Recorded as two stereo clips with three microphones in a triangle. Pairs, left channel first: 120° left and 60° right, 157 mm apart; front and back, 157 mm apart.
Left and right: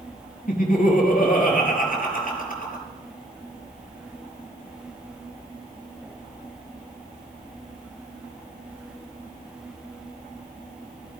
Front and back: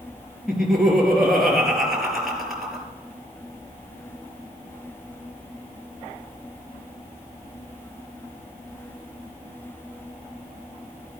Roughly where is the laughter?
Left.